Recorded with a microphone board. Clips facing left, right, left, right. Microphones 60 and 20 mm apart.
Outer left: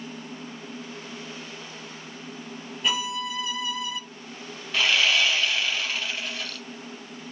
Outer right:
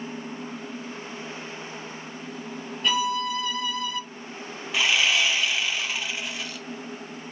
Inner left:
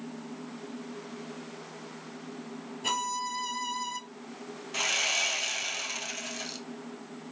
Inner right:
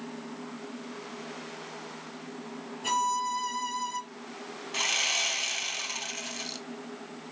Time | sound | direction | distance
2.8 | a violin | 5° left (ahead or behind) | 0.9 m
4.7 | sawing | 10° right (ahead or behind) | 1.3 m